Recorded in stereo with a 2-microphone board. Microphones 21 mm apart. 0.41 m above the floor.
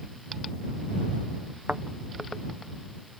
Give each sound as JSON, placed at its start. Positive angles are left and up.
{"t": 1.7, "sound": "a thud", "side_deg": -80}